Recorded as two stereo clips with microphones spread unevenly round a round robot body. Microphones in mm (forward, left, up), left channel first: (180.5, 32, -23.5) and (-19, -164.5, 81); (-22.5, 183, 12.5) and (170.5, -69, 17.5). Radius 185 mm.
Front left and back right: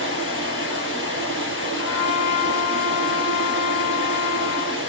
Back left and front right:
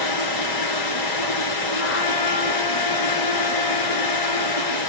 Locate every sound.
0.0 s running water: 115° left, 2.5 m
1.8 s a trumpet: 80° left, 1.0 m